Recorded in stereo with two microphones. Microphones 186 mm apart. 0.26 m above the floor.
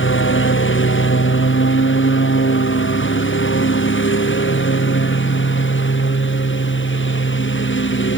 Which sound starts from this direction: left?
A lawn mower, at 0.0 s.